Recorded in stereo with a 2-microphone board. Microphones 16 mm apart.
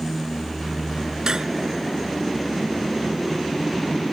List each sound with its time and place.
1.3 s cutlery clinking: 40° right (ahead or behind)